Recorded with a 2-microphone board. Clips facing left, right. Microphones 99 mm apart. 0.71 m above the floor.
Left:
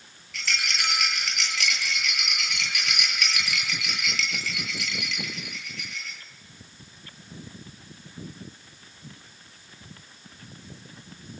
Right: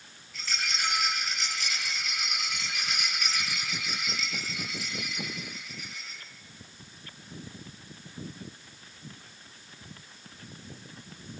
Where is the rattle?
75° left (ahead or behind), 9 m.